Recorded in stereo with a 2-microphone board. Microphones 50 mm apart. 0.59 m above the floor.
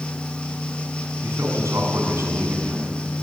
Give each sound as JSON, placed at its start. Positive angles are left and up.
{"t": 1.2, "sound": "a man speaking", "side_deg": -60, "distance_m": 5.5}